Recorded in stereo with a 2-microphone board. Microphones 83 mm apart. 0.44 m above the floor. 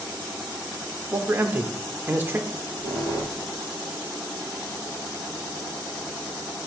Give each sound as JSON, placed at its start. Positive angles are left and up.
{"t": 1.1, "sound": "a man speaking", "side_deg": -25, "distance_m": 0.8}
{"t": 2.5, "sound": "a squeak", "side_deg": -80, "distance_m": 3.5}